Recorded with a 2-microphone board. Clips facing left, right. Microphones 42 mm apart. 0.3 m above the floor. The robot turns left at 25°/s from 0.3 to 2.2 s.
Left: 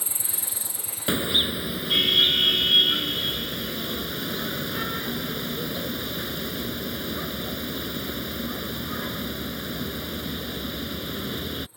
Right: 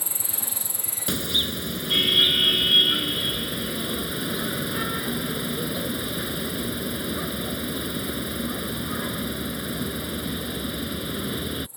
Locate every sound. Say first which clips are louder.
0.0 s an insect: right 1 dB; 50° right; by 11.8 s 100° right
1.1 s a car horn: left 2 dB; 25° left (ahead or behind); by 11.7 s 5° right (ahead or behind)